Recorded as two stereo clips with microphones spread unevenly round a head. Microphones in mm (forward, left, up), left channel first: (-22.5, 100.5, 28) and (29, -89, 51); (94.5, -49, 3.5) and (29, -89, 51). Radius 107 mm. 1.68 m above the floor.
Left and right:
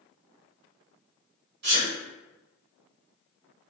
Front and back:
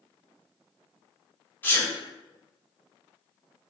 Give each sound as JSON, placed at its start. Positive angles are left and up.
{"t": 1.6, "sound": "a sneeze", "azimuth_deg": -35, "distance_m": 1.2}